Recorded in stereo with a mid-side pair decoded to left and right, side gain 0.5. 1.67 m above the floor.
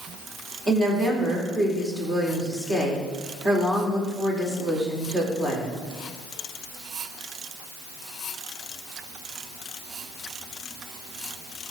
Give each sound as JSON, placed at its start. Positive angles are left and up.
{"t": 0.7, "sound": "a woman speaking", "azimuth_deg": -25, "distance_m": 4.0}